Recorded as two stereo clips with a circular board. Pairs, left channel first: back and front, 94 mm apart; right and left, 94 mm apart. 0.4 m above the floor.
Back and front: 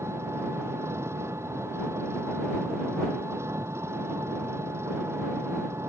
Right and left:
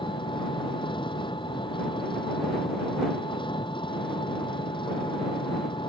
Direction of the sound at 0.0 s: 60° right.